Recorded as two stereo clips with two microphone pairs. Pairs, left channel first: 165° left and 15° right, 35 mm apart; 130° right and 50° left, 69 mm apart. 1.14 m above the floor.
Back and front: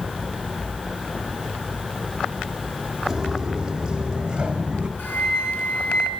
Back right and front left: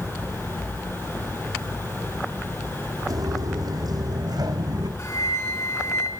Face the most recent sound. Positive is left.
turn(degrees=-170)